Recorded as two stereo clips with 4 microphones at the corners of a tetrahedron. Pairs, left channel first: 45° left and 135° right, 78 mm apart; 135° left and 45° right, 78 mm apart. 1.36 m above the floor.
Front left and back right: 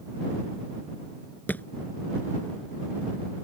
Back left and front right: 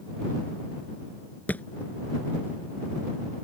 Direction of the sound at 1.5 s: 85° left.